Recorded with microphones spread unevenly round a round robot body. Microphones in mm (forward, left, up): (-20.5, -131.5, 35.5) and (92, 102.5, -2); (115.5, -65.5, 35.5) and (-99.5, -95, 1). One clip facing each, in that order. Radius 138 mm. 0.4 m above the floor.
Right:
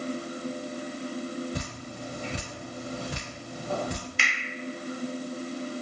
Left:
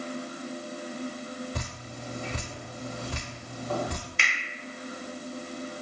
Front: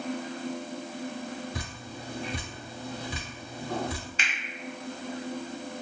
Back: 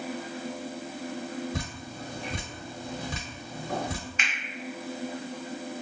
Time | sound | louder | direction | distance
1.5 | dripping | right 3 dB, back 3 dB | 160° left | 1.2 m
4.2 | a finger snap | right 3 dB, back 1 dB | 10° right | 0.8 m